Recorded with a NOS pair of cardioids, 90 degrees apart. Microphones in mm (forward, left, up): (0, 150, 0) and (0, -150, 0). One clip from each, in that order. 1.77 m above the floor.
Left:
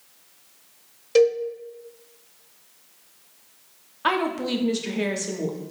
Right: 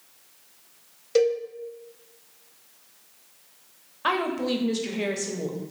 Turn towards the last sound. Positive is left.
turn(degrees=5)